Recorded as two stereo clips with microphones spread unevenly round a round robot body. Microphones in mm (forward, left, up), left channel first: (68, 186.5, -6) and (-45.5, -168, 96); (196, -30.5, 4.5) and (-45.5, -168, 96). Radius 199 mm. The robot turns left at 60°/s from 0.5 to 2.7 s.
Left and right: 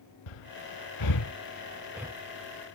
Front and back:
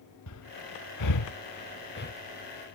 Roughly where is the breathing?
Left.